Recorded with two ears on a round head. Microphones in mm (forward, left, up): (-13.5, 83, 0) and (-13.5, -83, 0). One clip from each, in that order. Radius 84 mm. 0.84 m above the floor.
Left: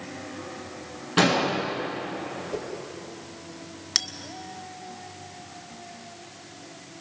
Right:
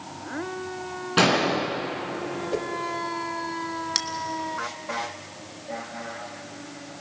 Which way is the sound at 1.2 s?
10° right (ahead or behind).